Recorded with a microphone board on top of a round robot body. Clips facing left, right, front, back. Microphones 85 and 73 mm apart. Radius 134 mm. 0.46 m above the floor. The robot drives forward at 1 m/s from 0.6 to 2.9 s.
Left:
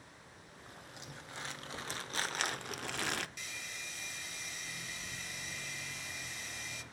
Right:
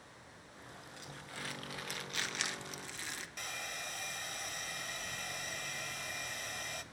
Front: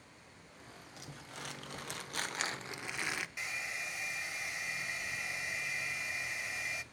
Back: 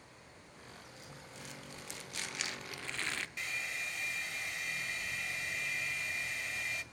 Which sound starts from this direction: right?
A hair dryer, at 3.4 s.